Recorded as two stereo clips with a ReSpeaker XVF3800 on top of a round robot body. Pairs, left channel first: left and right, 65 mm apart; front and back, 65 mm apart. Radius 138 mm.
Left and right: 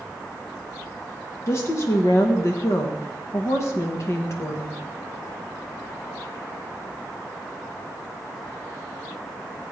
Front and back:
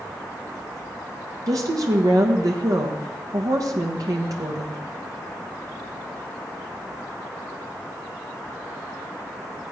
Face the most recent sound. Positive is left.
turn(degrees=140)